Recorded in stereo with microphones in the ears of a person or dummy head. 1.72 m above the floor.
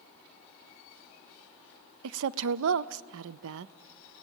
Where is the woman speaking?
75° right (ahead or behind), 0.5 m.